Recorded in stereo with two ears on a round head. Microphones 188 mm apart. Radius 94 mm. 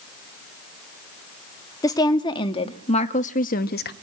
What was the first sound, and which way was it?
A woman speaking, 15° left (ahead or behind).